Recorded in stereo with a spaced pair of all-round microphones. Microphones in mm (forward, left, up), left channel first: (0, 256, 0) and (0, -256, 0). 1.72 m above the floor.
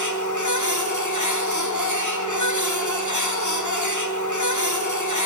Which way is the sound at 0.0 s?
35° left (ahead or behind).